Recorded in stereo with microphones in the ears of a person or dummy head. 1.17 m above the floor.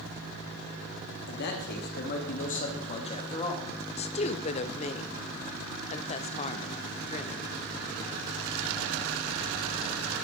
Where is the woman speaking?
30° left (ahead or behind), 0.8 m.